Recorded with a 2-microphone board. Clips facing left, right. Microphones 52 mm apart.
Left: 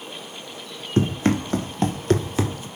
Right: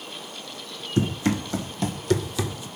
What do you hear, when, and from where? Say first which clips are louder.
1.0 s running footsteps: left 3 dB; 40° left (ahead or behind), 1.9 m; by 2.7 s 35° left (ahead or behind), 1.0 m